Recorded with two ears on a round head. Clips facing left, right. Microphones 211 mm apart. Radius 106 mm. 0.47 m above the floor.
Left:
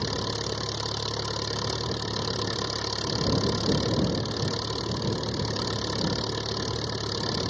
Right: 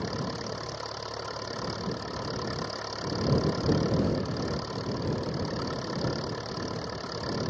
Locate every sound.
0.0 s an engine running: 50° left (ahead or behind)